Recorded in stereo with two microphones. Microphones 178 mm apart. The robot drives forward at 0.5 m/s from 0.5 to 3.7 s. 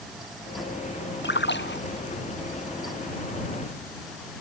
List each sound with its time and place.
1.2 s a splash: 80° left